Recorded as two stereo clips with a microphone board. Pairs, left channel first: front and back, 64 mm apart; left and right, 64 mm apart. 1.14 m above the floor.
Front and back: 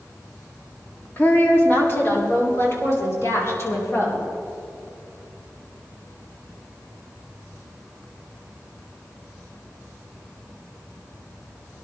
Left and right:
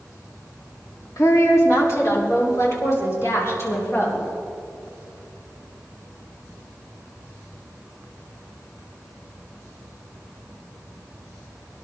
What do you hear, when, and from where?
1.2 s a woman speaking: 55° left, 2.5 m; by 4.2 s 45° left, 6 m